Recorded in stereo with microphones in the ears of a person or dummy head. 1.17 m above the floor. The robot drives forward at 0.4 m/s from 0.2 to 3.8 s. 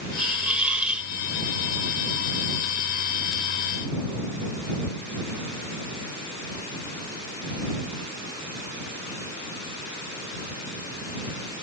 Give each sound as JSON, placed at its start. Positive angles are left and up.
{"t": 0.2, "sound": "a hiss", "side_deg": -5}